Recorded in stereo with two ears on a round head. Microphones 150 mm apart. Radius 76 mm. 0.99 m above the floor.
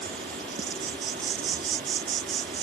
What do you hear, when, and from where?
0.0 s an insect: 55° right (ahead or behind)